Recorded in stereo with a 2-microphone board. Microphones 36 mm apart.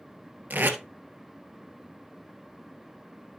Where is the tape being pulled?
60° right (ahead or behind), 1.2 m.